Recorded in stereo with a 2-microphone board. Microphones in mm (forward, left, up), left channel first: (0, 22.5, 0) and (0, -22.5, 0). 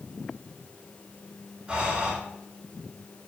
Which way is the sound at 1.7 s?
25° right (ahead or behind).